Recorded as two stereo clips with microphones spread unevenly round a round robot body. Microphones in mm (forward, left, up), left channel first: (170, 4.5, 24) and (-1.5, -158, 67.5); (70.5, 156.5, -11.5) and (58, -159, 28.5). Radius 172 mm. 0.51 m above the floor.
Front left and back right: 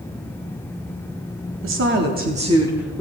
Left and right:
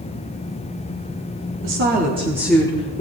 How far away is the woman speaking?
About 1.2 m.